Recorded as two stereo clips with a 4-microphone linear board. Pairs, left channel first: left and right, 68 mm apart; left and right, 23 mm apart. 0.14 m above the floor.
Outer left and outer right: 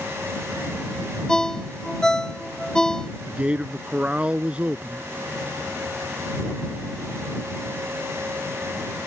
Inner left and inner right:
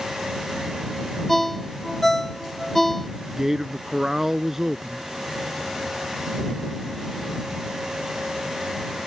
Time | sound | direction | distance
1.3 | a ringtone | 10° left (ahead or behind) | ?
3.3 | a man speaking | 20° right (ahead or behind) | ?